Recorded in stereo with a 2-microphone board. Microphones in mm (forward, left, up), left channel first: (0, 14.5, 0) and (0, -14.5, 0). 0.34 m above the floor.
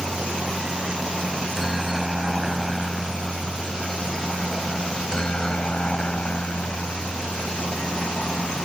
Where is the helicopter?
25° right (ahead or behind); by 8.7 s 60° left (ahead or behind).